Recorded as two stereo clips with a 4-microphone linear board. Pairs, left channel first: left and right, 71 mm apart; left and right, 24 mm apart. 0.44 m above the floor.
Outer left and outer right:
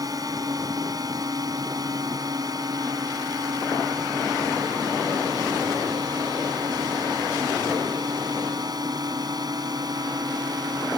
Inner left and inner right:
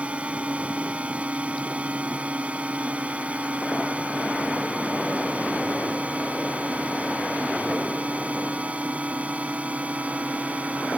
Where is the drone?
60° right (ahead or behind); by 11.0 s 70° right (ahead or behind).